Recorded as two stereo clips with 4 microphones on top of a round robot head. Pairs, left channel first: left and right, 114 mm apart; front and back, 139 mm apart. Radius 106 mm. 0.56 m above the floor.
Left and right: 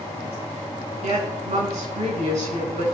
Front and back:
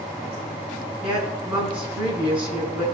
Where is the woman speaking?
100° right, 8 m.